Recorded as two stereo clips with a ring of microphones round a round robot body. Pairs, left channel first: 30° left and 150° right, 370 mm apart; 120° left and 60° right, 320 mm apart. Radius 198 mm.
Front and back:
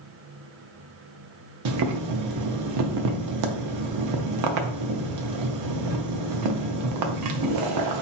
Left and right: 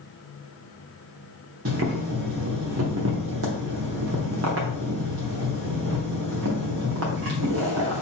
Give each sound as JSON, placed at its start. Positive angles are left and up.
{"t": 1.6, "sound": "boiling", "azimuth_deg": -115, "distance_m": 0.5}